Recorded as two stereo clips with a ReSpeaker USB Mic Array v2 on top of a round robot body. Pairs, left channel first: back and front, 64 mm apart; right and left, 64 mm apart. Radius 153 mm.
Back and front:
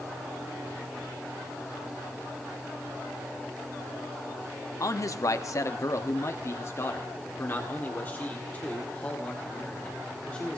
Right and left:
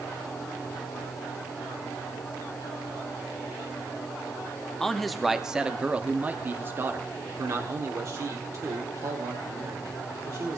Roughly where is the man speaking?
Behind.